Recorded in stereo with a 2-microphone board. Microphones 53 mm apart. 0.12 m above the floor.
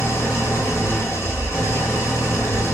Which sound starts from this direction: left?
An engine running, at 0.0 s.